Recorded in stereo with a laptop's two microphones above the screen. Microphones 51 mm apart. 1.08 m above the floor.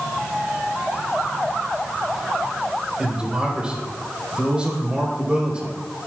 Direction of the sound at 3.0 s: 20° right (ahead or behind).